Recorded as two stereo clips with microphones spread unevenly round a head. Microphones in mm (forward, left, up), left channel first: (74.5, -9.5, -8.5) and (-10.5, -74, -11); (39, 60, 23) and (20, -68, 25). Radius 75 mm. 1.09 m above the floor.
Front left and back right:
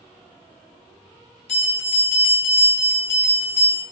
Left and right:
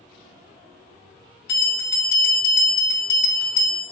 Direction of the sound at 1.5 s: 90° left.